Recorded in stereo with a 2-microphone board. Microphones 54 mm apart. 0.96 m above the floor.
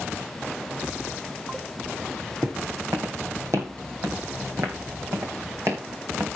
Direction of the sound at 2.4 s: 55° right (ahead or behind).